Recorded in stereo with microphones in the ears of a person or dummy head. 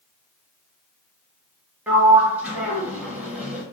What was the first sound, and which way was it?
A sliding door, 10° right (ahead or behind).